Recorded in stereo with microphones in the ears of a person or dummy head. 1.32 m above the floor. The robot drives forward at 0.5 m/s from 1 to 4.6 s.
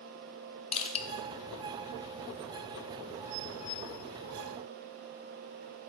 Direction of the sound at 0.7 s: 30° left (ahead or behind).